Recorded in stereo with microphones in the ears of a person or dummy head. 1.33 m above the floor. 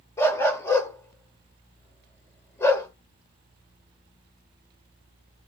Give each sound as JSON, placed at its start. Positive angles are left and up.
{"t": 0.2, "sound": "a dog barking", "side_deg": 15, "distance_m": 2.5}